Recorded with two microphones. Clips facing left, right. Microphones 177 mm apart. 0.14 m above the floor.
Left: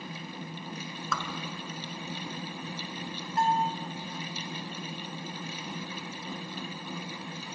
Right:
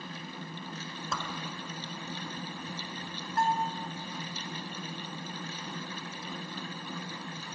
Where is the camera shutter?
I don't hear a camera shutter.